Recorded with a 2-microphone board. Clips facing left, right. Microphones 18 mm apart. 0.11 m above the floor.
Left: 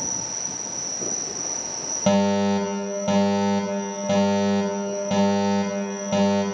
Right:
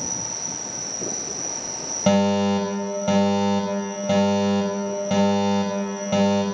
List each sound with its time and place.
0.0 s an insect: 45° right (ahead or behind), 3 m
2.1 s a fire alarm: 15° right (ahead or behind), 4.5 m